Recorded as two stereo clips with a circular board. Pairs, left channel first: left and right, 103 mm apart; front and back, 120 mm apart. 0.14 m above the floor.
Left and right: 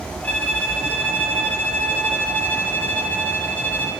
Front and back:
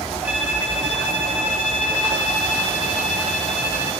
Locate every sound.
0.2 s a violin: 125° left, 1.5 m